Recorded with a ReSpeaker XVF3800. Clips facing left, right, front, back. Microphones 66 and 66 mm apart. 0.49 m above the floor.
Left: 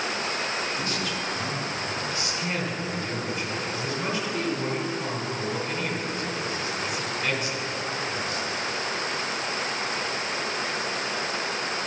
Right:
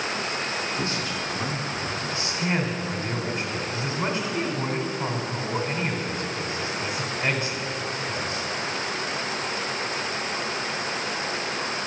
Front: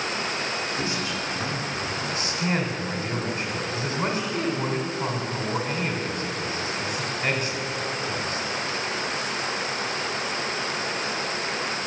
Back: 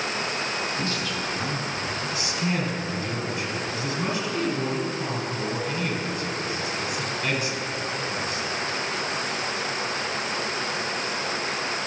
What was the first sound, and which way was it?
A man speaking, 55° right.